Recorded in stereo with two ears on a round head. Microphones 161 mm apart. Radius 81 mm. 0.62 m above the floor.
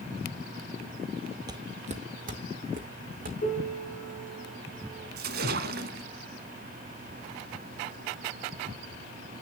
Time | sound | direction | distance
1.5 | footsteps | 20° right (ahead or behind) | 0.6 m
3.4 | a piano | 40° left (ahead or behind) | 5.5 m
5.2 | a splash | 55° right (ahead or behind) | 1.0 m